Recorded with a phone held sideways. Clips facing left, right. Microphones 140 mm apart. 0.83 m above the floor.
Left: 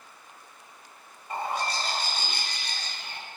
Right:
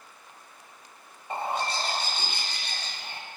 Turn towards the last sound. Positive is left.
turn(degrees=-25)  # may be behind; listen again after turning